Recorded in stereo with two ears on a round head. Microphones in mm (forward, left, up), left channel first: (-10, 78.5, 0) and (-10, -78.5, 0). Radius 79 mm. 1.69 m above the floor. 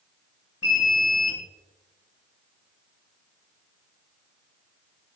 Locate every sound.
0.6 s an alarm: 65° left (ahead or behind), 5.5 m